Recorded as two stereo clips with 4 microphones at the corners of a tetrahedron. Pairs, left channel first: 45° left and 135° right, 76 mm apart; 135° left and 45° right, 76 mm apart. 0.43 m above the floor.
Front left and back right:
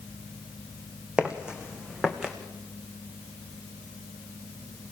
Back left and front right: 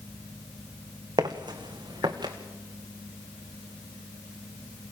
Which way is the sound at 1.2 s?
60° right.